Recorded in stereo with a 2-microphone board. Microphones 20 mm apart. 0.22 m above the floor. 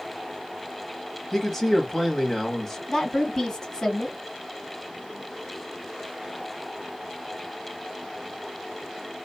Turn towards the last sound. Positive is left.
turn(degrees=30)  # may be behind; listen again after turning